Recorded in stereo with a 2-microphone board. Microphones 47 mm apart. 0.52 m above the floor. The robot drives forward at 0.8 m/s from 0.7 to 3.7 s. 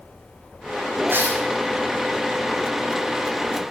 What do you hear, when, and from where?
1.1 s tearing paper: 50° right (ahead or behind), 8 m; by 1.4 s 45° right (ahead or behind), 8.5 m